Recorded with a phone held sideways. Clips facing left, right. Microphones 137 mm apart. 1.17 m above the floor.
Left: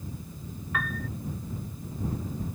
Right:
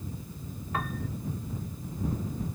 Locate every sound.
0.7 s a piano: 30° right (ahead or behind)